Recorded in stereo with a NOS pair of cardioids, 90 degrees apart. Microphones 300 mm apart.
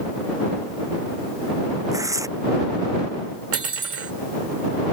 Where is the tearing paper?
10° right.